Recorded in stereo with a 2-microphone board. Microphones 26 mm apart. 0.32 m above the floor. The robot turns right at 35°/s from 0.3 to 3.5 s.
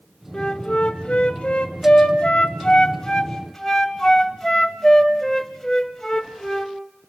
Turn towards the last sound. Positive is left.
turn(degrees=160)